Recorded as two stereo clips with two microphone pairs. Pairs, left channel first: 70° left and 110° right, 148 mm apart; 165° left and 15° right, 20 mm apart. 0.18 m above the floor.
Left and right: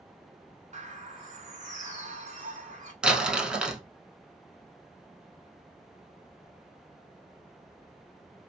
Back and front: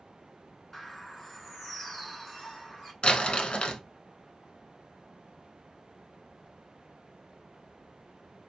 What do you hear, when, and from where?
0.7 s a bird: 125° right, 1.0 m
3.0 s crumpling: 165° left, 0.6 m